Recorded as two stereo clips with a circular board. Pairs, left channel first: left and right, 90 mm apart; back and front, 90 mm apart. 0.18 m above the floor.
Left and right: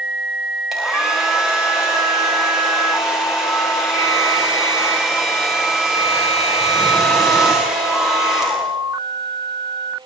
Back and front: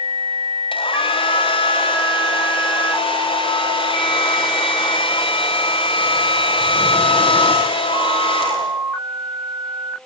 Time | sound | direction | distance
0.7 | a hair dryer | 175° right | 8 m